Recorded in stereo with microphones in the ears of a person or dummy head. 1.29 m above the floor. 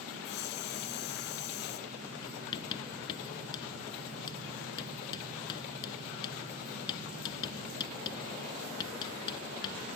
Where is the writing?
25° left (ahead or behind).